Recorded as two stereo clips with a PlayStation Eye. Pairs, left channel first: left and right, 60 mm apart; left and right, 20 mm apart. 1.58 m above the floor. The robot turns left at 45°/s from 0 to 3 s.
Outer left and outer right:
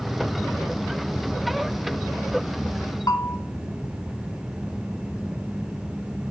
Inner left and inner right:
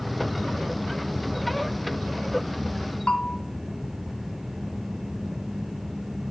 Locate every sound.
3.1 s a bell: 85° left, 0.7 m